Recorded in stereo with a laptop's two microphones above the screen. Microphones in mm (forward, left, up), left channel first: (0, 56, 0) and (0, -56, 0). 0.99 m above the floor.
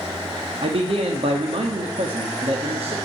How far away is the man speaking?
About 1.4 m.